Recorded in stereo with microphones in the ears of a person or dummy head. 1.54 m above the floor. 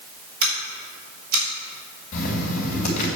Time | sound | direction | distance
0.4 | scissors | 55° right (ahead or behind) | 3.5 m
2.1 | writing | 40° left (ahead or behind) | 3 m